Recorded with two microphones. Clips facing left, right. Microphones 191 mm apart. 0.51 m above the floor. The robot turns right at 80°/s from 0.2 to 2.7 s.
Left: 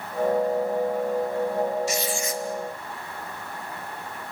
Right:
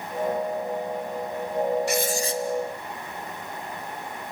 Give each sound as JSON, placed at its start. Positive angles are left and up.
{"t": 1.9, "sound": "writing", "azimuth_deg": -65, "distance_m": 1.3}